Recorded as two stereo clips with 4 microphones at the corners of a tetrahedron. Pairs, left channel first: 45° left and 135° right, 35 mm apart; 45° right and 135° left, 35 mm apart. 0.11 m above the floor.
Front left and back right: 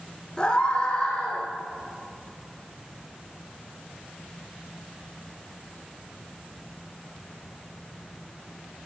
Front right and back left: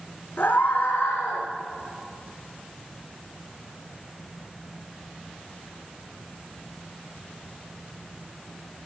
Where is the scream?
25° right, 6 m.